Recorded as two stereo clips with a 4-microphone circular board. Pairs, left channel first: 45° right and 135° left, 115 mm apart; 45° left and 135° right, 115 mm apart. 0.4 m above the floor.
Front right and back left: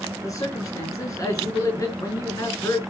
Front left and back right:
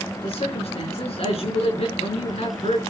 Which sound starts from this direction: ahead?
A man speaking, at 0.2 s.